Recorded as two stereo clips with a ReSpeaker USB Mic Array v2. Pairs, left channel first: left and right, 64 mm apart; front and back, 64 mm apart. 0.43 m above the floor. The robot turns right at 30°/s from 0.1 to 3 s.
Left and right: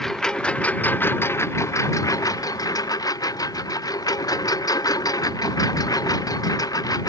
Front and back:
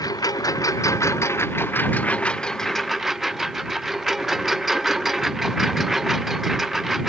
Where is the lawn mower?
5° left; by 7.1 s 95° left.